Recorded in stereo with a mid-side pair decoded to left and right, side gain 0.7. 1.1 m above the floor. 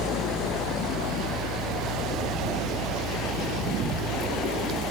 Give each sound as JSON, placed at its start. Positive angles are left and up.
{"t": 0.0, "sound": "a fan", "azimuth_deg": -55, "distance_m": 1.2}